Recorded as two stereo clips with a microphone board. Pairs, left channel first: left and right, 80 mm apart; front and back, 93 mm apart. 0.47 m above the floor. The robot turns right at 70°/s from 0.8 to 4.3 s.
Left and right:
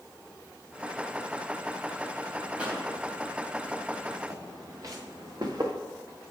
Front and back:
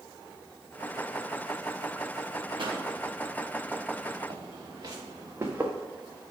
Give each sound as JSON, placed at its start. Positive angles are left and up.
{"t": 2.6, "sound": "a pop", "azimuth_deg": -165, "distance_m": 3.0}
{"t": 4.3, "sound": "footsteps", "azimuth_deg": -145, "distance_m": 3.0}